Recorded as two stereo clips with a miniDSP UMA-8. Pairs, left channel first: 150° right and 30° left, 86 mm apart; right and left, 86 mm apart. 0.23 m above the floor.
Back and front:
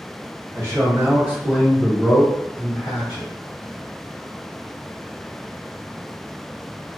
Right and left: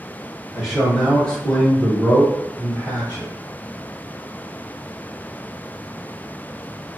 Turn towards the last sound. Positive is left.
turn(degrees=-135)